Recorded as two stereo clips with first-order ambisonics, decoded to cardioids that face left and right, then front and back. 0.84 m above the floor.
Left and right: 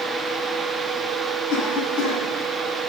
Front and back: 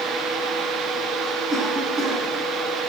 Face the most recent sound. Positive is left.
turn(degrees=105)